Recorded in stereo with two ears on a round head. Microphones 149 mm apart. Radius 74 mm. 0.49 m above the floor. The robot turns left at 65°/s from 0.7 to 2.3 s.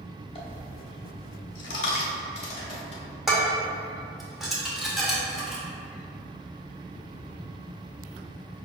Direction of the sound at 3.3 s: Centre (ahead or behind).